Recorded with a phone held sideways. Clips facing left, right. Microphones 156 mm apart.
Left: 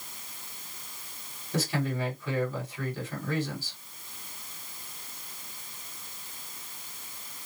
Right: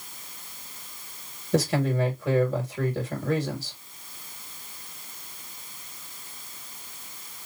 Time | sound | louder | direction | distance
1.5 | a man speaking | right 6 dB | 70° right (ahead or behind) | 2.5 m